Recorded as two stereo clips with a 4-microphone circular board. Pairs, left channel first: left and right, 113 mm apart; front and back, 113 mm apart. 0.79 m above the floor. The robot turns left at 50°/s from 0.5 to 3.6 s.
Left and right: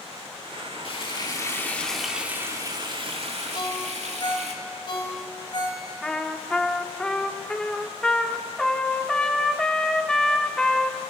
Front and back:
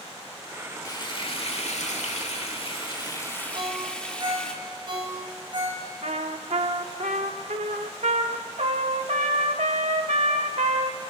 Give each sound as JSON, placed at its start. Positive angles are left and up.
{"t": 0.8, "sound": "frying", "azimuth_deg": 55, "distance_m": 1.6}
{"t": 3.5, "sound": "a ringtone", "azimuth_deg": 140, "distance_m": 3.0}
{"t": 6.0, "sound": "a trumpet", "azimuth_deg": 175, "distance_m": 1.0}